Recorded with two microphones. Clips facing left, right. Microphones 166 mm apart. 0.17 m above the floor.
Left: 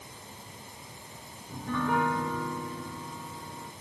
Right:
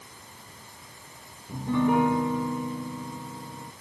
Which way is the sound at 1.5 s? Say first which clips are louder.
Right 6 dB; 20° right (ahead or behind).